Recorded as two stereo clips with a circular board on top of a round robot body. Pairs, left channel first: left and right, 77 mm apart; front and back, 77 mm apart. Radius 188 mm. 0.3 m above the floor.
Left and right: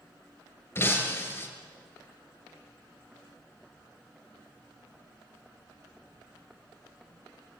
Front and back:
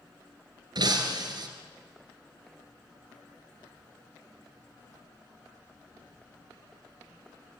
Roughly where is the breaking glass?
Behind left.